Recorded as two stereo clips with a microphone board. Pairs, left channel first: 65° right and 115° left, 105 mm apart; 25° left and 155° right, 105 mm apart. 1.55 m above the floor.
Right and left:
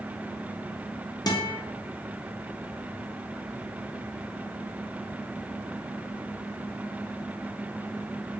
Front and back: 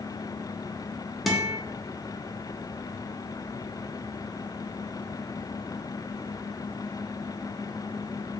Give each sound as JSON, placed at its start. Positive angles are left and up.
{"t": 1.3, "sound": "a guitar", "azimuth_deg": -65, "distance_m": 0.6}